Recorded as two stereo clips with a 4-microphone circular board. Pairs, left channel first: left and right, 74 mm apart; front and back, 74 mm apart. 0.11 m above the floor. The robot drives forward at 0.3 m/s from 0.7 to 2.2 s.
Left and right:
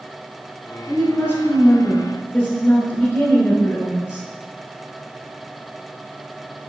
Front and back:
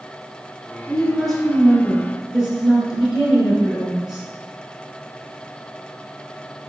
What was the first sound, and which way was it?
A woman speaking, 70° left.